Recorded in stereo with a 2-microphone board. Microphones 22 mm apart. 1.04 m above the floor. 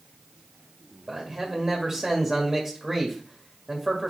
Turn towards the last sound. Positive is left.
turn(degrees=-20)  # may be behind; listen again after turning